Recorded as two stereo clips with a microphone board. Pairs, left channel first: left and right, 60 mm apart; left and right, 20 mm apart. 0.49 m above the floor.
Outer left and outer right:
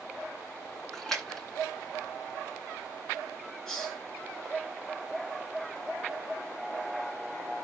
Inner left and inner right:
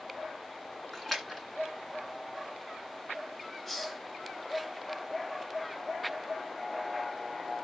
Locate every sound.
0.9 s a splash: 10° left (ahead or behind), 2 m
3.7 s a hiss: 10° left (ahead or behind), 3.5 m